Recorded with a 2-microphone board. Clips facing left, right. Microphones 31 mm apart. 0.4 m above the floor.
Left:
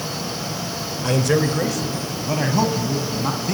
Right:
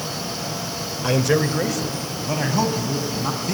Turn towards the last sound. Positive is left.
turn(degrees=5)  # may be behind; listen again after turning